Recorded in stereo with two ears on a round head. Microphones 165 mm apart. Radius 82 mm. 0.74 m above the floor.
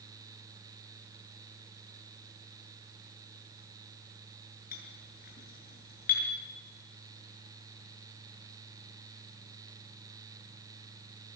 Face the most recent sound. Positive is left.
turn(degrees=50)  # may be behind; listen again after turning